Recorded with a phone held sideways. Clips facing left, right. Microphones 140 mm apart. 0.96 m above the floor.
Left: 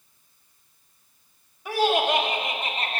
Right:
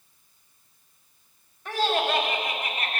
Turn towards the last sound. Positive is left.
turn(degrees=30)  # may be behind; listen again after turning